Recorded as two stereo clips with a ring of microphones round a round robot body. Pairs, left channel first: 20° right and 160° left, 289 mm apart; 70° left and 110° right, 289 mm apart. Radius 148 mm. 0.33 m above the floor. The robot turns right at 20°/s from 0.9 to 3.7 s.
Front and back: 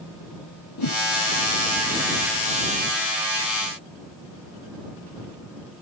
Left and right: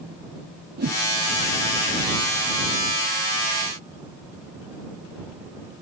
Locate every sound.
0.8 s a whoosh: 55° right; by 1.0 s 50° right